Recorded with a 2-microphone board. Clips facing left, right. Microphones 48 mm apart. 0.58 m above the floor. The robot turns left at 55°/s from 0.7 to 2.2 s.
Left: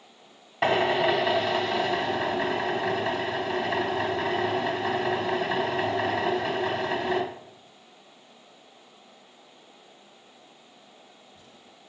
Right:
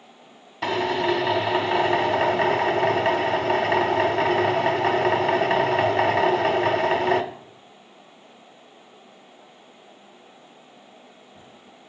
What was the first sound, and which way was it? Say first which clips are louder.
A drill: left 1 dB; 30° left.